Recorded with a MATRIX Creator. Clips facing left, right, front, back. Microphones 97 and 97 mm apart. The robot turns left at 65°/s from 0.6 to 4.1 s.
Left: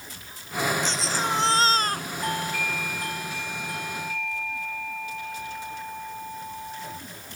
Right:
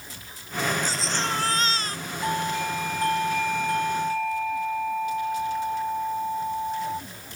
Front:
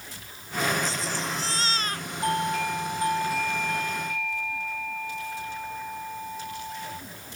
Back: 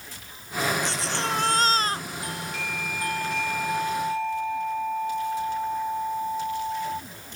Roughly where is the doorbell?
Ahead.